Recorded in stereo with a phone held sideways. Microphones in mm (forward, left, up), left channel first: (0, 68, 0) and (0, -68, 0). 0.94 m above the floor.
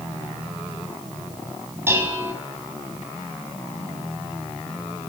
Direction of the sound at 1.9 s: 20° right (ahead or behind).